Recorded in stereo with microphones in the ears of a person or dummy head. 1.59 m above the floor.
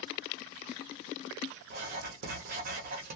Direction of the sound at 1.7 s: 40° right (ahead or behind).